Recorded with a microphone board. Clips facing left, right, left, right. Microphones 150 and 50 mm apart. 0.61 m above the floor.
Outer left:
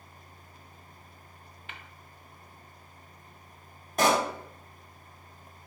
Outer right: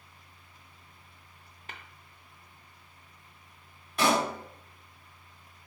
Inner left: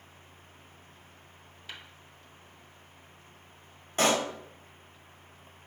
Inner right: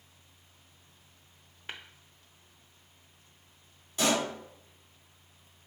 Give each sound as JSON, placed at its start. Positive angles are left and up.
{"t": 1.7, "sound": "tapping", "side_deg": -40, "distance_m": 0.6}
{"t": 4.0, "sound": "a pop", "side_deg": 45, "distance_m": 0.8}